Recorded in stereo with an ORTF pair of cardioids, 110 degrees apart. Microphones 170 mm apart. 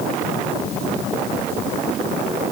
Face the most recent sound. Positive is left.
No sound to turn to.